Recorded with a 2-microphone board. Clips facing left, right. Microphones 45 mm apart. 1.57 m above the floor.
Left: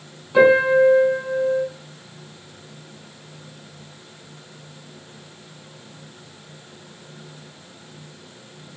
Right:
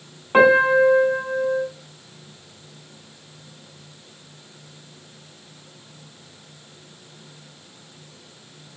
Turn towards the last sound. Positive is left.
turn(degrees=-50)  # may be behind; listen again after turning